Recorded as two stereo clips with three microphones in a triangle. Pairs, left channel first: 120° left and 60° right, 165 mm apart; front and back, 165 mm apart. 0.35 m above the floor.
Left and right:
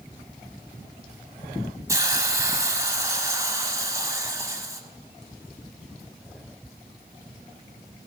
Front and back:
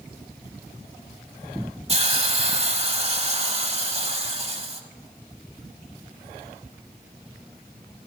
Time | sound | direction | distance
1.9 | a hiss | 130° right | 1.0 m